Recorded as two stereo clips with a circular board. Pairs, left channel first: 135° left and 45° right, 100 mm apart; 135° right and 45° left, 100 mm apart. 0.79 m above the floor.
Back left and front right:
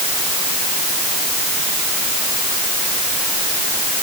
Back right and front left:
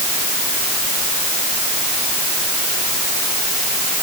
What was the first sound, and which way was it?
Only background noise.